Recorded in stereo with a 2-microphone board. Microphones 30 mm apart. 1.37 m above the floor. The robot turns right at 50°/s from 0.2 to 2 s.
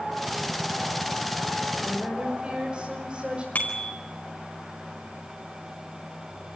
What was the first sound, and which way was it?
A woman speaking, 25° right (ahead or behind).